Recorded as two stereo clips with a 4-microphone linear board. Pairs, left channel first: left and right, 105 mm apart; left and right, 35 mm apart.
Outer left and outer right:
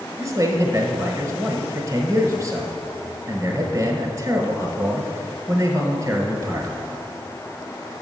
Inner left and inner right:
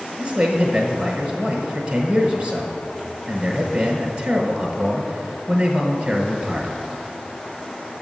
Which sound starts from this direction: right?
A man speaking, at 0.2 s.